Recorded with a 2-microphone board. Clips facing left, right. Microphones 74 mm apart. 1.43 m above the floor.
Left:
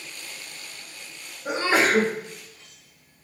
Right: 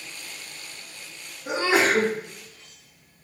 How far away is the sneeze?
About 1.6 m.